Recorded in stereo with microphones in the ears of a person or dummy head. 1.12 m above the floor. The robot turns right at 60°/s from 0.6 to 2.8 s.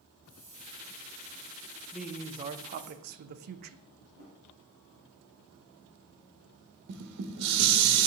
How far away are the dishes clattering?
About 0.9 m.